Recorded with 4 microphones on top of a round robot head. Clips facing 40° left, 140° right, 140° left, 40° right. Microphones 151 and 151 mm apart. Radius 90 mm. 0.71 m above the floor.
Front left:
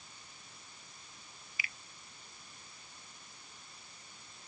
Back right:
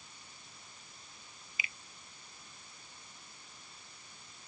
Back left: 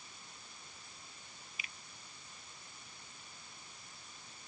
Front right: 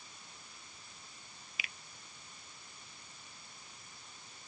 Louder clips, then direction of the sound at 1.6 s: Back right 1 dB, front right 5 dB; 70° right.